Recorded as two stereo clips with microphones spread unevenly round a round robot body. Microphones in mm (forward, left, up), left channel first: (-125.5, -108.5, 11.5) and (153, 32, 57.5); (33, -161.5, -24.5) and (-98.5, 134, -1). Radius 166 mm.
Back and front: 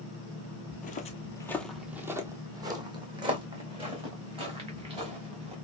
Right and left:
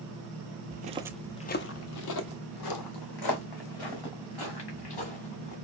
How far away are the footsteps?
About 0.7 m.